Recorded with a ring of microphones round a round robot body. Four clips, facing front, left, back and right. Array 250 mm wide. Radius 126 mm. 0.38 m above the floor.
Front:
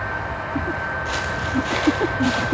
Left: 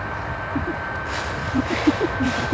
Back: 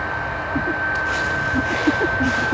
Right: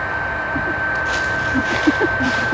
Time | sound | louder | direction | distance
1.1 | footsteps | right 6 dB, back 3 dB | 60° right | 7.5 m